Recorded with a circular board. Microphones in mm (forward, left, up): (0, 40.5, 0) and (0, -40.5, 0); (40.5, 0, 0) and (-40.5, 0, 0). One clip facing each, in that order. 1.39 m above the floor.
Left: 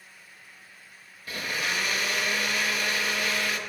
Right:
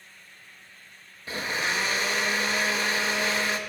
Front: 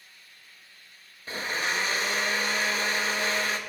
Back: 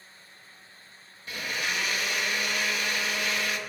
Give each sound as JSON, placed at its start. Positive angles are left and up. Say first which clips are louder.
{"t": 1.3, "sound": "a blender", "louder": "right 2 dB, front 2 dB", "azimuth_deg": -45, "distance_m": 0.9}